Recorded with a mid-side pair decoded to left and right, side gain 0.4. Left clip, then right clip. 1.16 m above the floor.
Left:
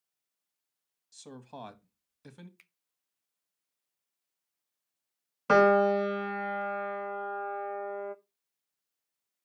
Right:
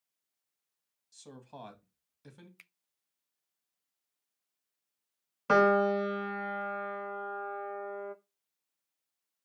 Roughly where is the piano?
Ahead.